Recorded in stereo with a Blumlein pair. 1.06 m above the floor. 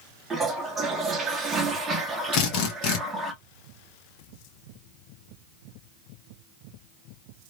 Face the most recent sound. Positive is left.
turn(degrees=40)